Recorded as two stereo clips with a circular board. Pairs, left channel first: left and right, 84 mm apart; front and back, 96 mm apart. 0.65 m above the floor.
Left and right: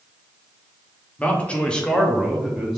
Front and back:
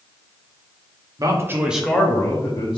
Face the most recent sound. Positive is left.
turn(degrees=-10)